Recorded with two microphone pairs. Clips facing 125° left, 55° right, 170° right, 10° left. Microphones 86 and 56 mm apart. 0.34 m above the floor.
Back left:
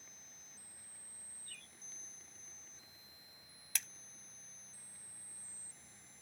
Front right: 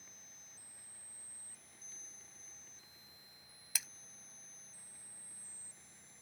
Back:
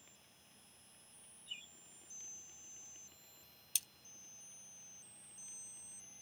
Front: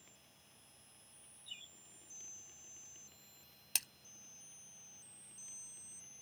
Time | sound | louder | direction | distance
1.5 | a bird | back left 4 dB, back 2 dB | 130° left | ?
3.8 | a splash | even, front 5 dB | 30° left | ?